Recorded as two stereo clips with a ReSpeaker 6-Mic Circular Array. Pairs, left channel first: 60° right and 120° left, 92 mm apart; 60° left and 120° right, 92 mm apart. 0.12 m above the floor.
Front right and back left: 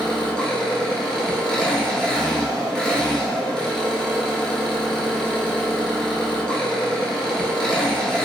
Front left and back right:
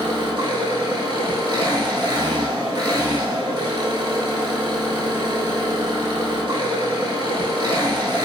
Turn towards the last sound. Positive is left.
turn(degrees=-140)